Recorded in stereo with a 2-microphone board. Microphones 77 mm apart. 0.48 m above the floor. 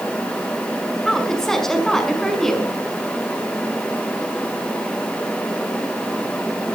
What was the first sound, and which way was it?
A woman speaking, 5° left (ahead or behind).